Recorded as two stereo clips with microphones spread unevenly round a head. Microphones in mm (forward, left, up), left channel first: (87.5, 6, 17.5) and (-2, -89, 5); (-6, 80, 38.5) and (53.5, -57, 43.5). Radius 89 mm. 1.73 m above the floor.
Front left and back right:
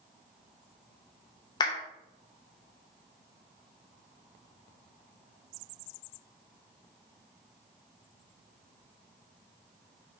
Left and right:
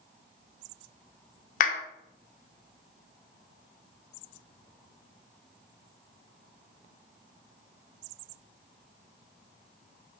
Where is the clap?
95° left, 0.6 m.